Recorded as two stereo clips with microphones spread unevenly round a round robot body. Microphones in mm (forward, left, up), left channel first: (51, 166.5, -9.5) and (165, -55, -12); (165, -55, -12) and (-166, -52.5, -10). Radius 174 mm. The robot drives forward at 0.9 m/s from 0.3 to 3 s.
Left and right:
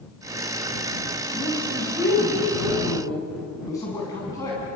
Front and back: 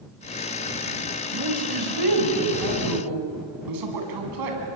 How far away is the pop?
I don't hear a pop.